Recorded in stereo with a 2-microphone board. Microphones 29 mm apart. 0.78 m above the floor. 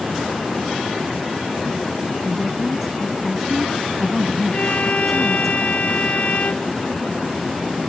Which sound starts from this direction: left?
A violin, at 4.5 s.